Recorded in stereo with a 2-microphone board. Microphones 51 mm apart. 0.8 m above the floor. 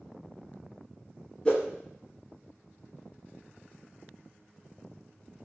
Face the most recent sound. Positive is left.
turn(degrees=15)  # may be behind; listen again after turning